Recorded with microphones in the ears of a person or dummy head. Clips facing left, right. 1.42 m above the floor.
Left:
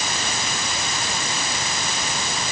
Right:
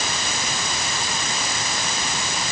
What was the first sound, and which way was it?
Only background noise.